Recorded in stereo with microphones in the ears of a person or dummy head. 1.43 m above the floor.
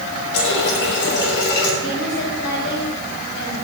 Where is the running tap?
65° left (ahead or behind), 3 m.